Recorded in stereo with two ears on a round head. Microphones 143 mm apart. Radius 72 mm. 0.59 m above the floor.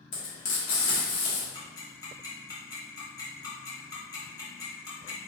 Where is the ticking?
25° left (ahead or behind), 1.1 m.